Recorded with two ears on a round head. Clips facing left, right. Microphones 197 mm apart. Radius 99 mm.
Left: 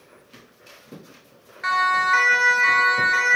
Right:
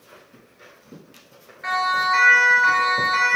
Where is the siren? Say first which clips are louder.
Even; 65° left (ahead or behind), 4 m; by 3.4 s 35° left (ahead or behind), 4.5 m.